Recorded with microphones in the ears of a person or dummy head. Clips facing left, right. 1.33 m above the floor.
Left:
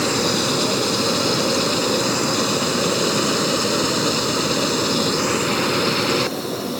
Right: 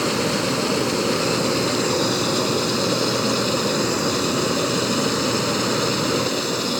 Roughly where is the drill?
I don't hear a drill.